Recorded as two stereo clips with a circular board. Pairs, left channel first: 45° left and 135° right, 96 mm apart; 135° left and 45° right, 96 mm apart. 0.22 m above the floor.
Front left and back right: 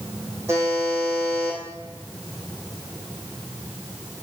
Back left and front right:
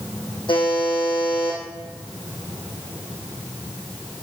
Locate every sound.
0.5 s a buzzer: 165° left, 3 m